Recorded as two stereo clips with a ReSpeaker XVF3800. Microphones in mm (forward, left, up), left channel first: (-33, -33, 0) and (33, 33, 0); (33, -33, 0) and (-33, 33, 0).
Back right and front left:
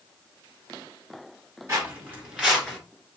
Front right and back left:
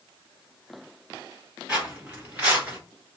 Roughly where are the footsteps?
Left.